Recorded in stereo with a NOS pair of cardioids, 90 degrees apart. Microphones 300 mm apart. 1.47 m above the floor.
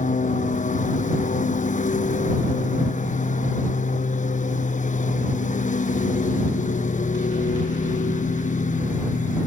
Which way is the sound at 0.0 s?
25° left.